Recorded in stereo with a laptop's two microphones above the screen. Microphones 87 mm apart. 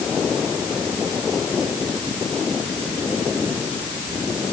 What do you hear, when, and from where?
Only background noise.